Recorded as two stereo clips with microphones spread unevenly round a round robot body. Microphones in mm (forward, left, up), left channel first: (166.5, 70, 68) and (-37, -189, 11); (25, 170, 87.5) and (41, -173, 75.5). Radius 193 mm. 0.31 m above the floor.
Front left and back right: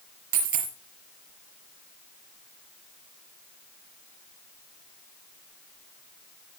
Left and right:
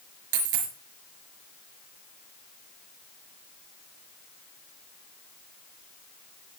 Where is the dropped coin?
100° right, 3.5 m.